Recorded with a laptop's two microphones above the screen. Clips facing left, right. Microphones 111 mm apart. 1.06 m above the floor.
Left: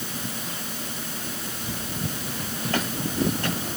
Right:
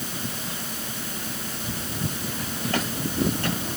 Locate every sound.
Only background noise.